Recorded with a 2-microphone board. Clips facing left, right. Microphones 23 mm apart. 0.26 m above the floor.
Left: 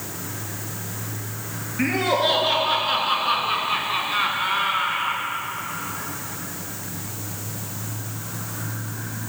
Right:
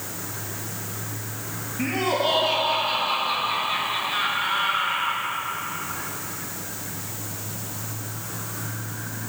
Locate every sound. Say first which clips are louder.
1.8 s laughter: left 3 dB; 75° left (ahead or behind), 4 m; by 5.2 s 15° left (ahead or behind), 1.9 m